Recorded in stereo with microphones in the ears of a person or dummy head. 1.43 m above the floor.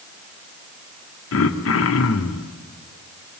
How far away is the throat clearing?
About 1.8 m.